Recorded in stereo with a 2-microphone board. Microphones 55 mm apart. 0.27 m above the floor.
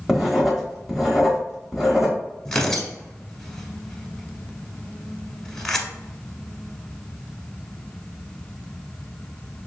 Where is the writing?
5° right (ahead or behind), 0.9 m.